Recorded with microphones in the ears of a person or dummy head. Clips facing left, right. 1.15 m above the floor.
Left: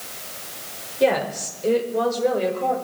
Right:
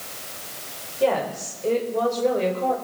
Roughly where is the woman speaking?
Left.